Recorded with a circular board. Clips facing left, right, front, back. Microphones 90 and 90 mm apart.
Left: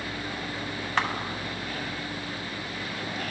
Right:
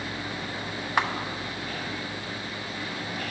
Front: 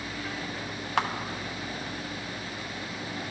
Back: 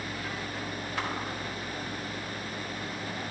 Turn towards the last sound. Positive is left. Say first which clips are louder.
# right 2 dB, front 7 dB
turn(degrees=-10)